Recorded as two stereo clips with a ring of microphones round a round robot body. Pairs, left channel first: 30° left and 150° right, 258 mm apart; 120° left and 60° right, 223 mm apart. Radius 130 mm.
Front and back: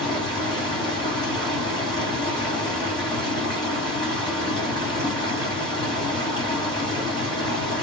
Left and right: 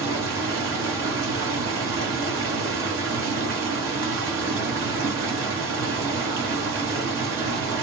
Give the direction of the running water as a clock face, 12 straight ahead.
1 o'clock.